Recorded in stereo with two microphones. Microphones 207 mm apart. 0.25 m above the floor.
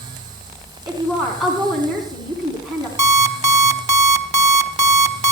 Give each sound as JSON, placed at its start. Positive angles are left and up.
{"t": 0.9, "sound": "a woman speaking", "side_deg": 0, "distance_m": 2.5}
{"t": 3.0, "sound": "an alarm clock", "side_deg": -35, "distance_m": 0.9}